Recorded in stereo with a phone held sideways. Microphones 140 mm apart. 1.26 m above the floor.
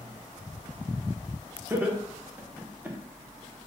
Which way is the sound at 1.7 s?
15° right (ahead or behind).